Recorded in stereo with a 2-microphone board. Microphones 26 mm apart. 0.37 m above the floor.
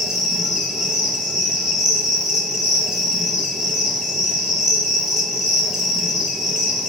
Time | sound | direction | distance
0.0 | an insect | 30° right (ahead or behind) | 1.2 m